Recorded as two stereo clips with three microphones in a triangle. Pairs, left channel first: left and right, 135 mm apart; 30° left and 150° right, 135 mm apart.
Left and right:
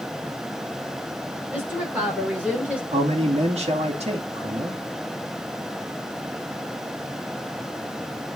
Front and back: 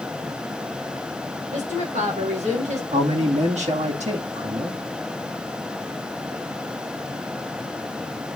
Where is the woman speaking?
165° right, 5 m; by 2.8 s 170° right, 3 m.